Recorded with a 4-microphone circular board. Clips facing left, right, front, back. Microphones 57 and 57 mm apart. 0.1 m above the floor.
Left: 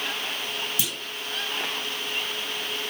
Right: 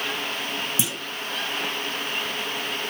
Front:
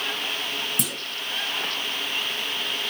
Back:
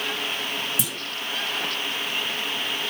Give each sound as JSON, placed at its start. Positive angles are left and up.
{"t": 0.8, "sound": "a clunk", "azimuth_deg": -25, "distance_m": 0.6}